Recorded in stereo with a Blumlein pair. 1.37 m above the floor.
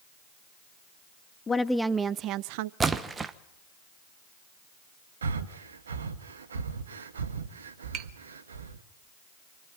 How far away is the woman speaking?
About 0.8 m.